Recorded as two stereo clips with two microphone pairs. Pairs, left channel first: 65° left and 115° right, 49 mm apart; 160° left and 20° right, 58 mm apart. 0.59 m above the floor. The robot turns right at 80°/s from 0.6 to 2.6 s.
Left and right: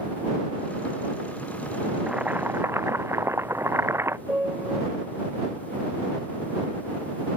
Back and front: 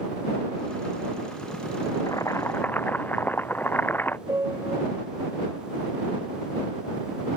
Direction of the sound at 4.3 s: 50° right.